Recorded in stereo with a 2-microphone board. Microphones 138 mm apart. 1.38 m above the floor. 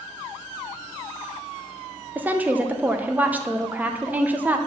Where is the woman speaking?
10° right (ahead or behind), 0.8 m.